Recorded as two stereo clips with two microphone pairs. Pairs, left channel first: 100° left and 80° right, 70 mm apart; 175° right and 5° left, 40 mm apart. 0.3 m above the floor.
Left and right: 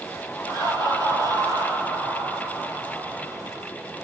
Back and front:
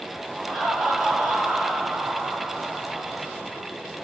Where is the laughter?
90° left, 7 m; by 3.7 s 85° left, 8.5 m.